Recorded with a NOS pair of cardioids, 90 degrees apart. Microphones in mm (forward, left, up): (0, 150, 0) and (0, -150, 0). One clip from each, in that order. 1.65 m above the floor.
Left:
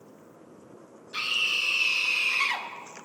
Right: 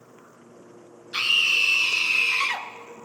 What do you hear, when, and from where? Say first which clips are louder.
1.1 s a scream: right 6 dB; 45° right, 2 m; by 2.7 s 10° right, 1.9 m